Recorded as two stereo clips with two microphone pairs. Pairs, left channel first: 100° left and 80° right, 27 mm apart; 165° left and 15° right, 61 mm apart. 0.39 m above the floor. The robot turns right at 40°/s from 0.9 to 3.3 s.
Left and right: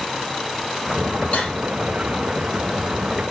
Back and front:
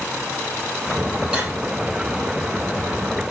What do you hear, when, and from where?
1.3 s cutlery clinking: 60° left, 7.5 m; by 1.6 s 70° left, 7.5 m